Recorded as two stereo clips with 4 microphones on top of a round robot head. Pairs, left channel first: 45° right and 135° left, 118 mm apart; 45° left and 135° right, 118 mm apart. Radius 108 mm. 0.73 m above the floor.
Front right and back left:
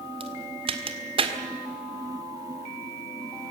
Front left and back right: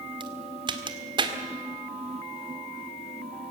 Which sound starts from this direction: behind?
A crack, at 0.2 s.